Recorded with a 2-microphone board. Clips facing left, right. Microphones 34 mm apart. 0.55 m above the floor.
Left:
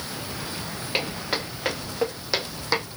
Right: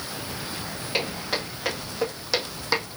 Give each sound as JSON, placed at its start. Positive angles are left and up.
{"t": 0.9, "sound": "footsteps", "side_deg": 20, "distance_m": 3.0}